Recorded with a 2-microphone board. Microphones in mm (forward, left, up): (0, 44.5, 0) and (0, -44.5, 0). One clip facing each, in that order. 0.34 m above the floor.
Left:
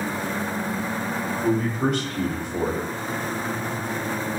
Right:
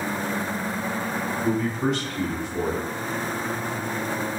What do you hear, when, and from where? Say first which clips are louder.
1.4 s a man speaking: left 2 dB; 55° left (ahead or behind), 2 m